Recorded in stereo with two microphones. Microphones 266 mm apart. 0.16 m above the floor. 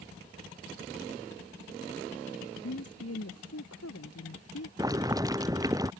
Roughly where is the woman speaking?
Left.